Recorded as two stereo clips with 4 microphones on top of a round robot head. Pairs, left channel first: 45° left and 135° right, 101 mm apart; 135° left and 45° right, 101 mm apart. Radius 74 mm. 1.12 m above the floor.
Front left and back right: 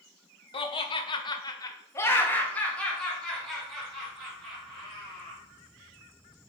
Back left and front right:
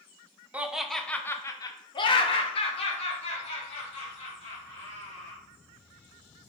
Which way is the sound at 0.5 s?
30° left.